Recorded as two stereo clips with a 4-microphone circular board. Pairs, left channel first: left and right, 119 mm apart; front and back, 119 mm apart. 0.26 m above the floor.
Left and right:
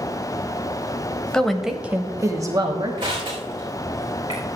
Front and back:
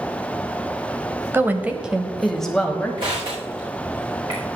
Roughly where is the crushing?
Behind right.